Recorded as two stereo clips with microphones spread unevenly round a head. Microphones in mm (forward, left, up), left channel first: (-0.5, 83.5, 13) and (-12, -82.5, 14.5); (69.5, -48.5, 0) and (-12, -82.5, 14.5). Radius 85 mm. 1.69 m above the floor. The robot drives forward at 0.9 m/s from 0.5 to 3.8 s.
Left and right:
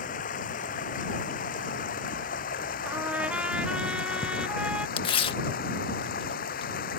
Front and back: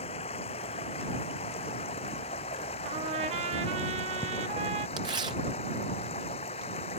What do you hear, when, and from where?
0.0 s running water: 45° left
2.9 s a trumpet: 175° right
5.0 s tearing paper: 145° left